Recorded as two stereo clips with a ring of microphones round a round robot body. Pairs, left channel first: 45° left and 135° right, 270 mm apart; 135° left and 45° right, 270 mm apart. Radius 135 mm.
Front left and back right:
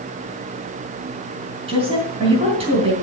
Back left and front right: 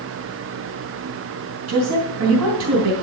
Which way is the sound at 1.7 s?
65° right.